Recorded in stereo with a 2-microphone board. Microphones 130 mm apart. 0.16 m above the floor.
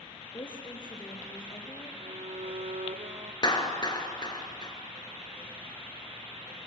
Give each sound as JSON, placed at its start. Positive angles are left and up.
{"t": 0.3, "sound": "a woman speaking", "side_deg": 40, "distance_m": 3.5}
{"t": 2.0, "sound": "a violin", "side_deg": -65, "distance_m": 1.7}
{"t": 3.4, "sound": "a clap", "side_deg": 35, "distance_m": 2.5}